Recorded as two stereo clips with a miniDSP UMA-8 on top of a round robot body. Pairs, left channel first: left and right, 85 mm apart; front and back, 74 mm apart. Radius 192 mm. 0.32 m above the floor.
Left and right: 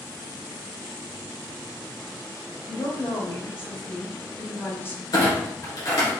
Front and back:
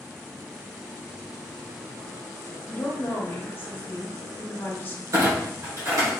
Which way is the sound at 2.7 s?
45° left.